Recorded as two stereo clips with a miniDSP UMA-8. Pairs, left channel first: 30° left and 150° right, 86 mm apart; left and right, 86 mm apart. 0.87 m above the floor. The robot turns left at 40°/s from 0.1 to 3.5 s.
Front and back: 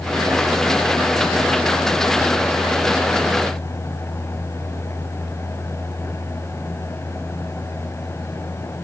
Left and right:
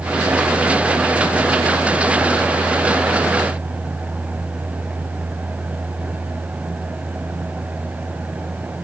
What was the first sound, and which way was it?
Only background noise.